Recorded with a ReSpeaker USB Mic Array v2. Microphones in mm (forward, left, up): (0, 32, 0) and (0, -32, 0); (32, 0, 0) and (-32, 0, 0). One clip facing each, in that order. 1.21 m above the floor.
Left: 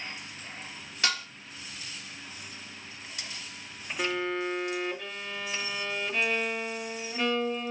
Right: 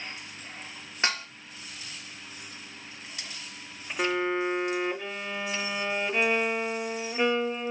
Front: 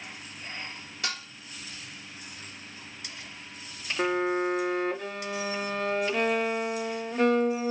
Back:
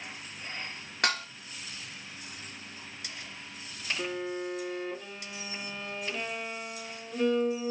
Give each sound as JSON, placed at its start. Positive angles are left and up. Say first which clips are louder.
{"t": 1.0, "sound": "dishes clattering", "louder": "right 1 dB, back 6 dB", "azimuth_deg": -150, "distance_m": 1.8}
{"t": 4.0, "sound": "a violin", "louder": "right 3 dB, front 10 dB", "azimuth_deg": -20, "distance_m": 0.6}